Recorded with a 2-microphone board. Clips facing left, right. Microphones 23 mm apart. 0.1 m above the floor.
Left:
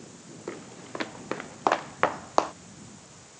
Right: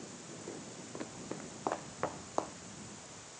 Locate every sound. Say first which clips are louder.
0.5 s footsteps: left 9 dB; 65° left (ahead or behind); by 2.5 s 60° left (ahead or behind)